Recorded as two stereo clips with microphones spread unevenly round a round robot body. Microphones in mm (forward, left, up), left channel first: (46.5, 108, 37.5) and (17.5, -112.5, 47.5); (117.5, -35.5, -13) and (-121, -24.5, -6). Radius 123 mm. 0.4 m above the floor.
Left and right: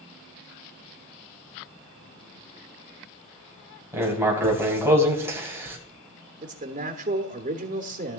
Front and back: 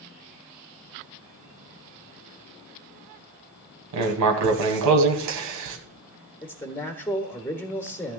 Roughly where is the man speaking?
Right.